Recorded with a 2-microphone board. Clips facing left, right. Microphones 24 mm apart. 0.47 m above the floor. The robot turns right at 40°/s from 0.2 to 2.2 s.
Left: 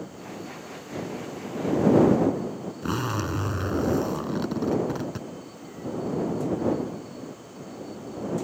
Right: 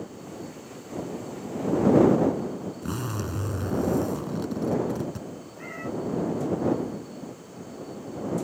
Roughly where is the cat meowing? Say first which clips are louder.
Right 3 dB; right.